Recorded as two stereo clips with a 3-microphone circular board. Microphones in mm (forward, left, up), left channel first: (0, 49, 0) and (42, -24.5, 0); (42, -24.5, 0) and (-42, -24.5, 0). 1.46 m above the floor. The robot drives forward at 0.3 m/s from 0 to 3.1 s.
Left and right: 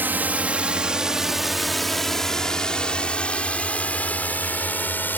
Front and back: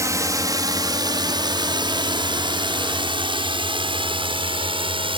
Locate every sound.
0.0 s a drone: 130° right; by 5.2 s 170° right